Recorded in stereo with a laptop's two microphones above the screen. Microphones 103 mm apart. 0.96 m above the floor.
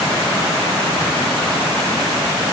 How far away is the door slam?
I don't hear a door slam.